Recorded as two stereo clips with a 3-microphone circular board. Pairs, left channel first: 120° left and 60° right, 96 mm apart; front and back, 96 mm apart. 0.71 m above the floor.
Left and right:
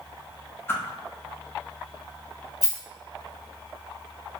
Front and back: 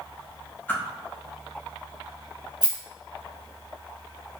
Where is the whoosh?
65° left, 0.6 m.